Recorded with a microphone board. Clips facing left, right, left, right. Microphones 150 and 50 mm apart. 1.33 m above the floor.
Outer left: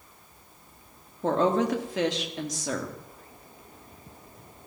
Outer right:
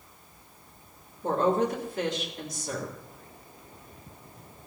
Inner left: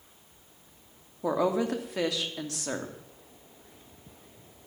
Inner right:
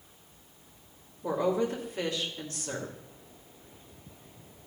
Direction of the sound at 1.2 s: 85° left.